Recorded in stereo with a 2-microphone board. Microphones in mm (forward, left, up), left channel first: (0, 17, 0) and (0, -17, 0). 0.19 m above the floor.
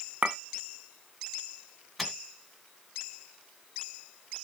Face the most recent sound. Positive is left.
turn(degrees=0)  # may be behind; listen again after turning